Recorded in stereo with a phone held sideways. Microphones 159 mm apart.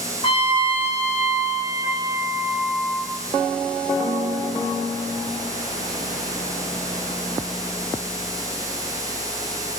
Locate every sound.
0.2 s a trumpet: 35° left (ahead or behind), 2 m